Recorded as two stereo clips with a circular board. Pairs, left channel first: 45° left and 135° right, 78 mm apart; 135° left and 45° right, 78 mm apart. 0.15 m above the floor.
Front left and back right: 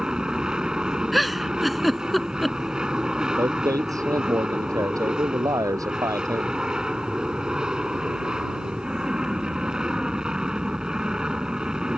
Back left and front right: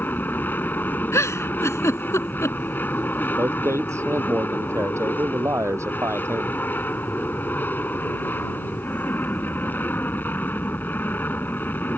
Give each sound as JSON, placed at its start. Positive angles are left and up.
{"t": 0.0, "sound": "an aircraft", "azimuth_deg": 155}
{"t": 1.1, "sound": "a giggle", "azimuth_deg": 135}
{"t": 3.4, "sound": "a man speaking", "azimuth_deg": -95}